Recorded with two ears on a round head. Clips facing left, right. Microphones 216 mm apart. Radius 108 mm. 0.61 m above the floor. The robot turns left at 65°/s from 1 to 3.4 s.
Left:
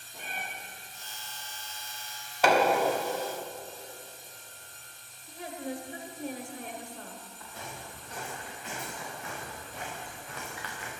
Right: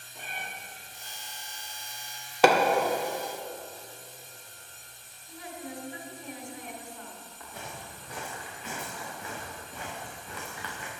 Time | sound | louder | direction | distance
0.1 | a cat meowing | left 1 dB | 40° left (ahead or behind) | 5.5 m
2.4 | hammering | right 3 dB | 60° right (ahead or behind) | 1.7 m
5.3 | a woman speaking | left 4 dB | 35° left (ahead or behind) | 1.8 m
7.4 | footsteps | right 2 dB | 50° right (ahead or behind) | 5.5 m